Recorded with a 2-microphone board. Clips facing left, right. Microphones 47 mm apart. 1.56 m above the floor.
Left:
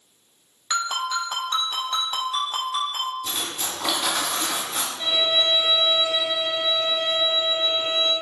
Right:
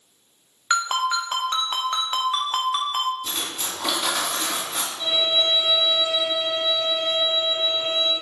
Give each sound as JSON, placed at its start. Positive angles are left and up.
{"t": 0.7, "sound": "a ringtone", "side_deg": -40, "distance_m": 0.8}
{"t": 3.2, "sound": "cutlery clinking", "side_deg": 0, "distance_m": 1.7}
{"t": 5.0, "sound": "a violin", "side_deg": 35, "distance_m": 1.0}